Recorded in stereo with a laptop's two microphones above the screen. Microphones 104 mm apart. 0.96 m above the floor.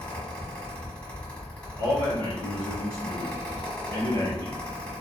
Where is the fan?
10° left (ahead or behind), 1.3 m.